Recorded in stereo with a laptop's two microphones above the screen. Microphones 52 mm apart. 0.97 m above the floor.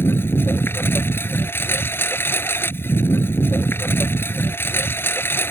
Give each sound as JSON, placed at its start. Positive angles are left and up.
{"t": 0.0, "sound": "a lawn mower", "side_deg": 45}